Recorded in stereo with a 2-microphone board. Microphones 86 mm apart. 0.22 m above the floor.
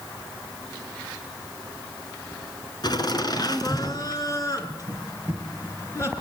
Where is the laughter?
55° left (ahead or behind), 3 m; by 6.1 s 35° left (ahead or behind), 4 m.